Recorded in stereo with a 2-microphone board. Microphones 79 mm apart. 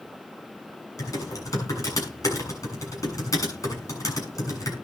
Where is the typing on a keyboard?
45° left (ahead or behind), 7 m.